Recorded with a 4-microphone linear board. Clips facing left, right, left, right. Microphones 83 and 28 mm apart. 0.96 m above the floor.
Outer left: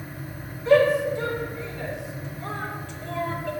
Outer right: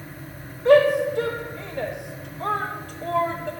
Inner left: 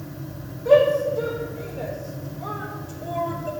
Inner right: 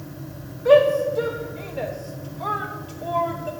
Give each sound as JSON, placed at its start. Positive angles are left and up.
{"t": 0.7, "sound": "a shout", "side_deg": -65, "distance_m": 1.4}